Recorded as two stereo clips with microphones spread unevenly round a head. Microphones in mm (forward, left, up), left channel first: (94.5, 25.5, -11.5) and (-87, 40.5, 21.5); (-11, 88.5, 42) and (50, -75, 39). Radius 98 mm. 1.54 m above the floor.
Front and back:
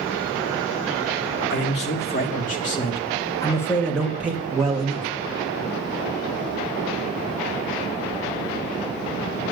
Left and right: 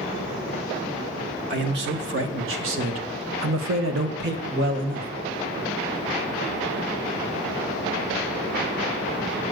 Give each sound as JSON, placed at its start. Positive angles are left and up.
{"t": 1.5, "sound": "a man speaking", "azimuth_deg": -45, "distance_m": 1.9}